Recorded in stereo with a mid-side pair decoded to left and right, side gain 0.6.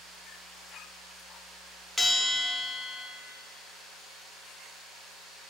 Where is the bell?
5° left, 0.8 m.